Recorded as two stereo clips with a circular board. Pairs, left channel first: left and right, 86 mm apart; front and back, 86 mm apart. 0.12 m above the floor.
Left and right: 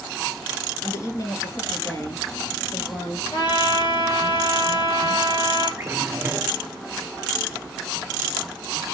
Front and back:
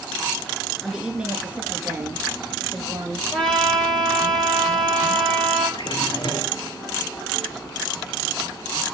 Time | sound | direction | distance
0.8 | a woman speaking | 100° left | 1.6 m
3.3 | a trumpet | 80° left | 3.5 m
5.8 | a drawer | 25° right | 2 m